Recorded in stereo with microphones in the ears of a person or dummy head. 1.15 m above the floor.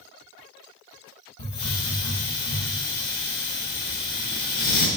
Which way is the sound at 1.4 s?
45° left (ahead or behind).